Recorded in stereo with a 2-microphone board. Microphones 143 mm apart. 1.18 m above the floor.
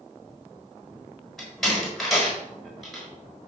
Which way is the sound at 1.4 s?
Centre (ahead or behind).